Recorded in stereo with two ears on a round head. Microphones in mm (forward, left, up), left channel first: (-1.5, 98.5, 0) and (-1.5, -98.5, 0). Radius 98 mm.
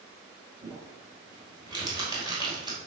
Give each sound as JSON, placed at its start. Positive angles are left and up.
{"t": 0.6, "sound": "crumpling", "side_deg": -20, "distance_m": 3.5}